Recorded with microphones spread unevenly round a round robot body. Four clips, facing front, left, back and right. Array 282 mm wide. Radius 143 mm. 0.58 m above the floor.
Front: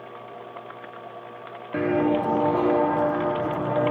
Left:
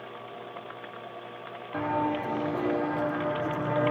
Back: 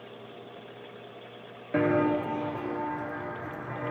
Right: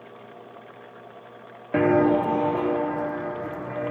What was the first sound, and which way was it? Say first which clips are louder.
Footsteps: right 9 dB, front 3 dB; 85° right.